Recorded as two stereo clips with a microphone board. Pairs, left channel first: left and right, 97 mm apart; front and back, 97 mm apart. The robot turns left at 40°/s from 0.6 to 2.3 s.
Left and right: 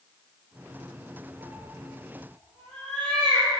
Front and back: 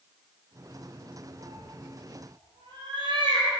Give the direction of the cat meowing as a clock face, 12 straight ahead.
5 o'clock.